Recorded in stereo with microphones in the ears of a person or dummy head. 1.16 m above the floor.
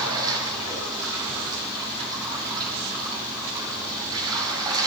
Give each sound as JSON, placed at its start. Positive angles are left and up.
{"t": 0.0, "sound": "running water", "side_deg": -20, "distance_m": 5.5}